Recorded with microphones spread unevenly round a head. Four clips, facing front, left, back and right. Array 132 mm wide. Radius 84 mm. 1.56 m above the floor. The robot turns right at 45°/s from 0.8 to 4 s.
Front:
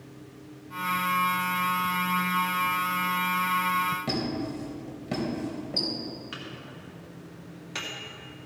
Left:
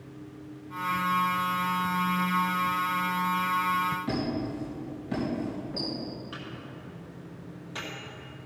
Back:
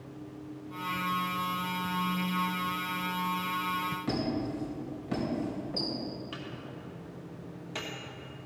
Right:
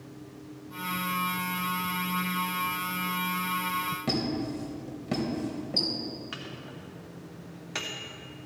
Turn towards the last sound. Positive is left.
turn(degrees=-135)